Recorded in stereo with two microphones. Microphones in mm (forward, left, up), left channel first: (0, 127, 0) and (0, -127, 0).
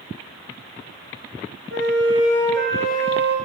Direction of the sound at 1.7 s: 45° right (ahead or behind).